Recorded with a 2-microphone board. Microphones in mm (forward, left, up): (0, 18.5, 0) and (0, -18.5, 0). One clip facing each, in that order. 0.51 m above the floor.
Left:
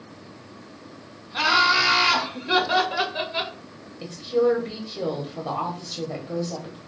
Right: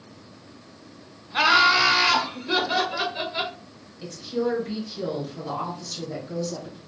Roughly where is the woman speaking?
Left.